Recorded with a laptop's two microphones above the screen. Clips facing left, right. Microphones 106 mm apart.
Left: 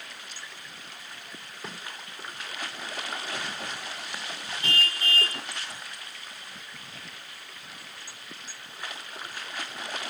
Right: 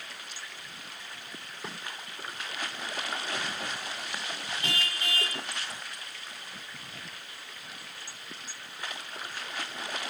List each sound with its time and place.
4.6 s a car horn: 35° left (ahead or behind), 3.5 m